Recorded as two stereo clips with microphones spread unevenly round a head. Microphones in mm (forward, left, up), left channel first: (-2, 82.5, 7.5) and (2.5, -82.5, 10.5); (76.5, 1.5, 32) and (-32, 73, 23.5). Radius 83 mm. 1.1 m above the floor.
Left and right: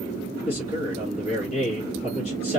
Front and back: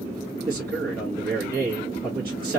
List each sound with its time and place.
0.5 s a man speaking: 145° left, 1.5 m